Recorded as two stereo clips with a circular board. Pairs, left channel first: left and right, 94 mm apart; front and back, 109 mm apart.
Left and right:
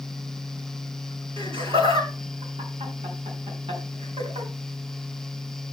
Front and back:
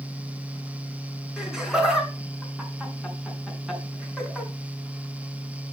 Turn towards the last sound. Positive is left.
turn(degrees=-95)